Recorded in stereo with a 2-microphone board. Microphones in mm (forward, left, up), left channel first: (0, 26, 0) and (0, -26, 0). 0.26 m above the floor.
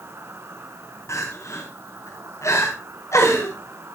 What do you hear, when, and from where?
0.0 s an insect: 55° right (ahead or behind), 3 m
1.1 s crying: 65° left (ahead or behind), 9.5 m